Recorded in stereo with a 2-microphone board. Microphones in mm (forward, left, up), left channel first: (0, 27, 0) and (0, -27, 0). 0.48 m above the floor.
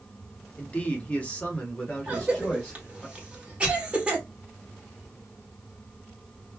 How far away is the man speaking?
About 0.8 m.